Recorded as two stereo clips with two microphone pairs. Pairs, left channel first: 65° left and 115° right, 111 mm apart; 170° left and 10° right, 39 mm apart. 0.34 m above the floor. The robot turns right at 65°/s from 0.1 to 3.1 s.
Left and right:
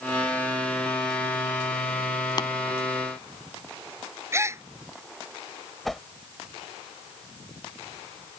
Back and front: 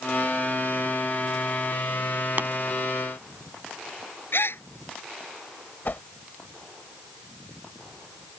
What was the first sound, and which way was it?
Tapping, 15° left.